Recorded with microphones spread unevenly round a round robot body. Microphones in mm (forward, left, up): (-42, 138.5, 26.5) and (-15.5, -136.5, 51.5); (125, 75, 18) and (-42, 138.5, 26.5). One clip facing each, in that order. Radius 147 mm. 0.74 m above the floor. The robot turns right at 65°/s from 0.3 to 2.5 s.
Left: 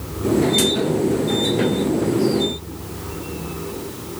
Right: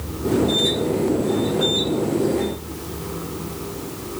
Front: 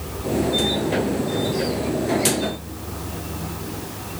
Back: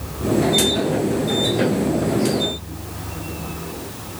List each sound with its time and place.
Only background noise.